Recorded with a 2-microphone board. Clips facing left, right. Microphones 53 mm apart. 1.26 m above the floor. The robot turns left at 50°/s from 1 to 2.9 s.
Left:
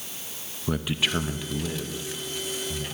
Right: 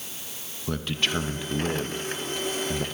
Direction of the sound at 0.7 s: 10° left (ahead or behind).